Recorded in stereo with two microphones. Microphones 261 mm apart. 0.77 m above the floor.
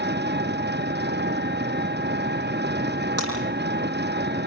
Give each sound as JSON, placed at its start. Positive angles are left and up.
{"t": 0.0, "sound": "an engine running", "side_deg": -40, "distance_m": 0.8}
{"t": 3.2, "sound": "breaking glass", "side_deg": -60, "distance_m": 9.0}